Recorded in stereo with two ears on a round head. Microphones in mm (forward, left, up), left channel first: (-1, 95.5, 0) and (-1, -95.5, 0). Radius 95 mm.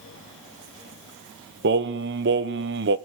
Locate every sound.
1.6 s singing: 55° right (ahead or behind), 1.1 m